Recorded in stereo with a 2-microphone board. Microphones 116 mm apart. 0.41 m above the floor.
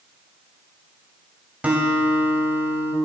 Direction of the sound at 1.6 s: 10° right (ahead or behind).